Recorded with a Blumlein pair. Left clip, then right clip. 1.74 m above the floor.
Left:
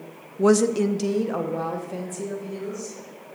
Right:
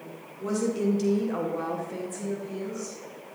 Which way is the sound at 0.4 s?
45° left.